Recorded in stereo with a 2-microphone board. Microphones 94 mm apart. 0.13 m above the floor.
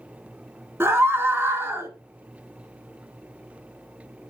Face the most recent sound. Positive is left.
turn(degrees=-25)  # may be behind; listen again after turning